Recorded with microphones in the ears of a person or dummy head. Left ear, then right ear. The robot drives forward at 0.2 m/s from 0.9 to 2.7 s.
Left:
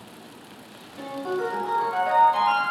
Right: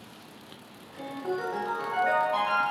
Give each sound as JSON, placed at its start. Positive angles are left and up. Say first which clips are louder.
{"t": 1.0, "sound": "a ringtone", "louder": "left 4 dB", "side_deg": -25, "distance_m": 0.9}